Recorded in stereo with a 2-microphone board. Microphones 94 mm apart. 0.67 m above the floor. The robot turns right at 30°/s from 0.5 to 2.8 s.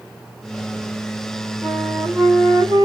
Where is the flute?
175° right, 2 m; by 2.9 s 140° right, 2 m.